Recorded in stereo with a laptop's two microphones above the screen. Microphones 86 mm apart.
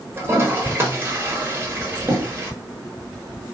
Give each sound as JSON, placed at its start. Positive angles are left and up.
{"t": 0.2, "sound": "a toilet flushing", "side_deg": -30, "distance_m": 1.1}